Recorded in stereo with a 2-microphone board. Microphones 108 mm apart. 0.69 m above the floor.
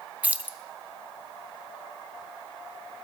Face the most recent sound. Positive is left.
turn(degrees=-15)  # may be behind; listen again after turning